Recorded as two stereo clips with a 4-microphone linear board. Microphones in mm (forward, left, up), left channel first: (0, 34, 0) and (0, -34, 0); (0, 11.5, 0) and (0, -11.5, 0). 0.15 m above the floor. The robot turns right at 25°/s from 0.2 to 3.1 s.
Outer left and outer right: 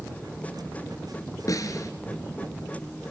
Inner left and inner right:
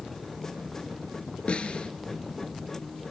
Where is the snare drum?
55° left (ahead or behind), 2.5 m; by 1.9 s 50° left (ahead or behind), 2.5 m.